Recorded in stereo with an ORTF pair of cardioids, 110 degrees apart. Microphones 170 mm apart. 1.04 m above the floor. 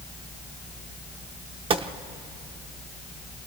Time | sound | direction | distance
1.7 | a gunshot | 35° right | 0.8 m